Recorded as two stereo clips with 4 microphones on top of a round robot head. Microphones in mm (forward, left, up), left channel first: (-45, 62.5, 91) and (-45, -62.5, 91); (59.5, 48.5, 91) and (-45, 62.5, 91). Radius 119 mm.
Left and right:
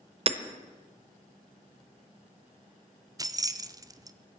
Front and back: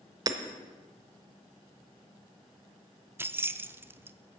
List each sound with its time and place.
0.3 s hammering: 130° right, 0.8 m
3.2 s keys jangling: 135° right, 0.6 m